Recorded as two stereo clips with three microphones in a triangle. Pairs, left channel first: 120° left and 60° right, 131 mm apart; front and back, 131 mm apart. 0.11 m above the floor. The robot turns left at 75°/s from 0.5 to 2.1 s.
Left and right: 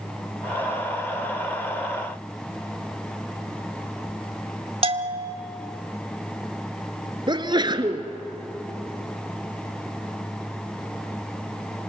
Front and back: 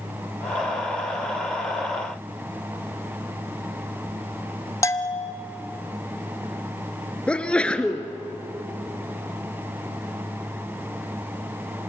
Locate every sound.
4.8 s a bell: 55° right, 0.9 m
7.3 s a sneeze: 75° right, 1.5 m